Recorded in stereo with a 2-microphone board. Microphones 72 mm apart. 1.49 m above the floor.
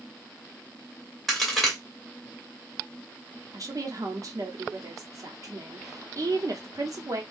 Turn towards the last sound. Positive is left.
turn(degrees=-50)  # may be behind; listen again after turning